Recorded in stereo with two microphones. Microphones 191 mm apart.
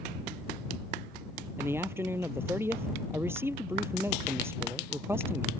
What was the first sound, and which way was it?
A man speaking, 10° right (ahead or behind).